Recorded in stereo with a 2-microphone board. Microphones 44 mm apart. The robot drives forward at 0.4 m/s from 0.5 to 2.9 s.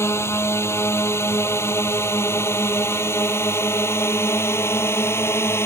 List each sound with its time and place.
0.0 s a drone: 80° left; by 5.7 s 75° left (ahead or behind)